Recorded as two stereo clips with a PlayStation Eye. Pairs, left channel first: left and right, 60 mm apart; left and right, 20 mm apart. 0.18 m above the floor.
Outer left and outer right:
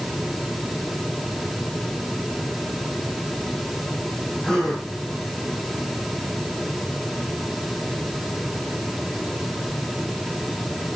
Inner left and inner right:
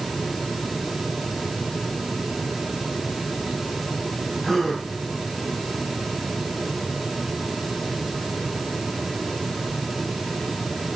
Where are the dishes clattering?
No dishes clattering in this recording.